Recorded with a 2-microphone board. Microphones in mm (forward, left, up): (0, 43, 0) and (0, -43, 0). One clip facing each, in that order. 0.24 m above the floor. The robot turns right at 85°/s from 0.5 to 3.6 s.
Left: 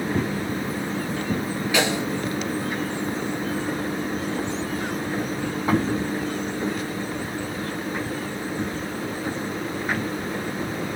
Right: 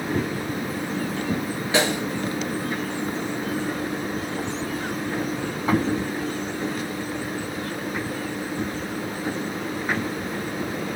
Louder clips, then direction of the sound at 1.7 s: Right 1 dB; 30° right (ahead or behind).